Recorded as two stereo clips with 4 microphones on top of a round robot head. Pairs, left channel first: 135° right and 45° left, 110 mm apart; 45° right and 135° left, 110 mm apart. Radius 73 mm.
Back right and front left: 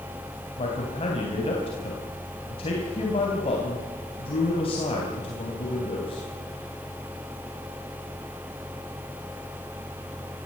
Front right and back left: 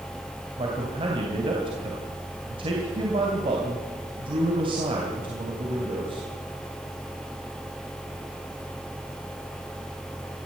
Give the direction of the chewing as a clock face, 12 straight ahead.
I don't hear chewing.